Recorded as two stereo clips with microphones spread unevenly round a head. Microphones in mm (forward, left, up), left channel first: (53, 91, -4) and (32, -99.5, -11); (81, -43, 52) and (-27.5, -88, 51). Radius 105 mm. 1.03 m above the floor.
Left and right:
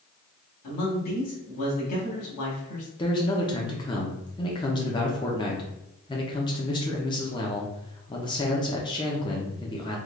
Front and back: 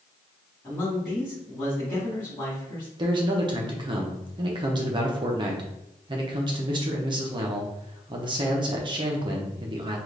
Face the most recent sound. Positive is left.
turn(degrees=155)